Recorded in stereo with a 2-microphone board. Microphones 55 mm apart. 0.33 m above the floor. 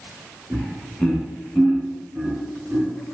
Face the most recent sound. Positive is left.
turn(degrees=10)  # may be behind; listen again after turning